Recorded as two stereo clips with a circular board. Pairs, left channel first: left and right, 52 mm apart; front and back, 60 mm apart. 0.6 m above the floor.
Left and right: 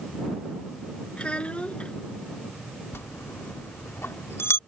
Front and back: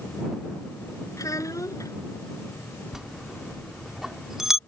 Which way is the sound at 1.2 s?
20° left.